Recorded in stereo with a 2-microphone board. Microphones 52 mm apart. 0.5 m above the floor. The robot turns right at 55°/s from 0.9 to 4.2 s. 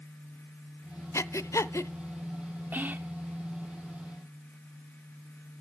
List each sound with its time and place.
1.1 s breathing: 70° left (ahead or behind), 0.6 m; by 1.9 s 60° left (ahead or behind), 0.6 m
2.7 s whispering: 40° right (ahead or behind), 0.8 m; by 3.1 s 35° right (ahead or behind), 0.8 m